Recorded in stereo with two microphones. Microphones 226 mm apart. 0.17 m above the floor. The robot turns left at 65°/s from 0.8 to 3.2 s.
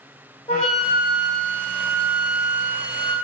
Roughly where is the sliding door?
I don't hear a sliding door.